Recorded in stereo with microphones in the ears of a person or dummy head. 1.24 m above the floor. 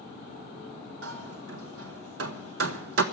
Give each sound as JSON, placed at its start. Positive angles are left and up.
{"t": 1.0, "sound": "hammering", "side_deg": -70, "distance_m": 0.9}